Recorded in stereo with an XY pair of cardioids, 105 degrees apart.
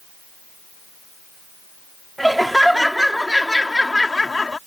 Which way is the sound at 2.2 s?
10° right.